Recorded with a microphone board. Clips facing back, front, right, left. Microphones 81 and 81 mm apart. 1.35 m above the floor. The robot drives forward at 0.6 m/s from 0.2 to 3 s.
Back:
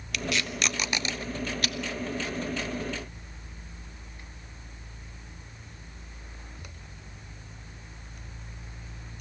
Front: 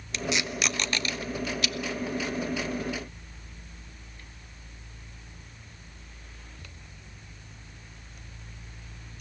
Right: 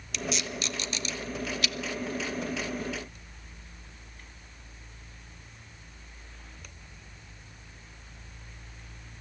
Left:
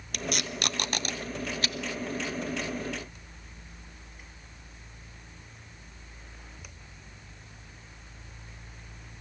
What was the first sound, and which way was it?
Tape being pulled, 60° left.